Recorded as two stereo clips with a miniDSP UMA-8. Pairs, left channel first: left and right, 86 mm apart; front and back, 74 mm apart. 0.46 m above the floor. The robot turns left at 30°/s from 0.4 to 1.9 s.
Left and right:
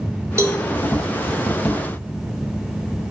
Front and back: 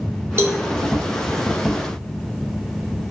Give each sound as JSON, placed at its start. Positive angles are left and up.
{"t": 0.4, "sound": "a cowbell", "azimuth_deg": -135, "distance_m": 0.5}